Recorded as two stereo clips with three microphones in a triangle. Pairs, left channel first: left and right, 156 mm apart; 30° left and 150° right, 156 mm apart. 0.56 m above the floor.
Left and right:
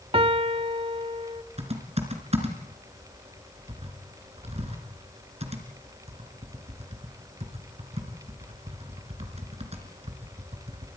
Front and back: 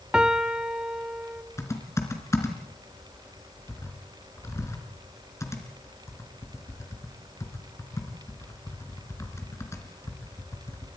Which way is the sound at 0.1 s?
70° right.